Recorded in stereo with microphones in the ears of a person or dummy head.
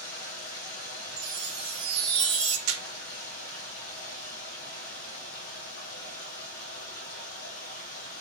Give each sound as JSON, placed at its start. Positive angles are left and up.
{"t": 0.0, "sound": "running water", "side_deg": 70, "distance_m": 1.2}
{"t": 1.2, "sound": "a chime", "side_deg": -10, "distance_m": 0.8}
{"t": 2.7, "sound": "a camera shutter", "side_deg": -50, "distance_m": 0.8}